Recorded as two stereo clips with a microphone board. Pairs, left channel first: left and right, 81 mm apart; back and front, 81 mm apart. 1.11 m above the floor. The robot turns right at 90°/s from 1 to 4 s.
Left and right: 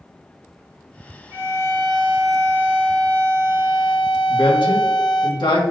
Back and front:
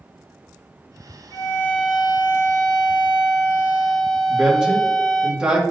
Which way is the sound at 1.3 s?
145° right.